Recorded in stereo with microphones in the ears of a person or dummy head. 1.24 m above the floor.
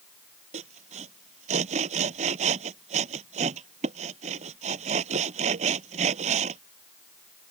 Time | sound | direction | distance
0.5 | sawing | 40° right (ahead or behind) | ?